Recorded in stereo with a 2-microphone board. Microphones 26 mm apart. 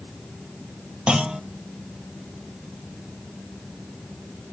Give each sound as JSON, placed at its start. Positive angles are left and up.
{"t": 1.1, "sound": "a clunk", "side_deg": -40, "distance_m": 0.7}